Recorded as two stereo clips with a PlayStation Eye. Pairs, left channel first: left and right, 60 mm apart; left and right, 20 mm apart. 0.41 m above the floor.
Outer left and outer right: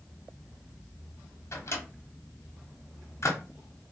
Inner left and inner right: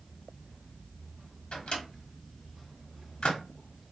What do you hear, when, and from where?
1.5 s a microwave: 50° left (ahead or behind), 1.0 m